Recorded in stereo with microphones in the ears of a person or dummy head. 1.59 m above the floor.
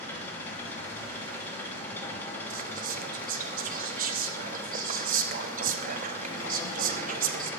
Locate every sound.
0.0 s an engine running: 15° left (ahead or behind), 3 m
2.5 s whispering: 50° right (ahead or behind), 1.3 m